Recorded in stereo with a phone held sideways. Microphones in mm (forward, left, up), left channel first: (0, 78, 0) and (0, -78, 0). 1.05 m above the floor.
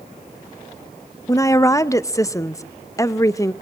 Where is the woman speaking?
20° left (ahead or behind), 0.6 m.